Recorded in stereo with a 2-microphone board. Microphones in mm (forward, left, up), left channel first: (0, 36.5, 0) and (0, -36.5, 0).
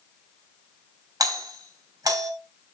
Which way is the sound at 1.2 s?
60° right (ahead or behind).